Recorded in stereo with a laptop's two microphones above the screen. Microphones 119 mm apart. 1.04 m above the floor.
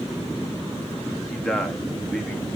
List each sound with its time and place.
1.3 s a man speaking: 5° left (ahead or behind), 2 m